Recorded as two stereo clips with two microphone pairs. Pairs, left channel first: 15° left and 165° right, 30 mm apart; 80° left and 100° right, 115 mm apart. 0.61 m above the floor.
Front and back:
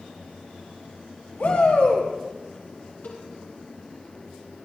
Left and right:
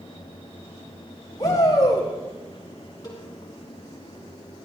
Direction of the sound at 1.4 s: 30° left.